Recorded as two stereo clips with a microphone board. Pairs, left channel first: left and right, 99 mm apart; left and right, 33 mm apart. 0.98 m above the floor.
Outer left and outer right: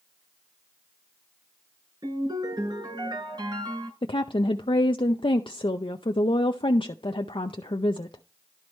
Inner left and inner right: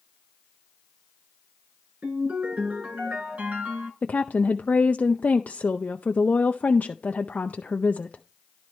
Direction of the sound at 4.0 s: 65° left (ahead or behind).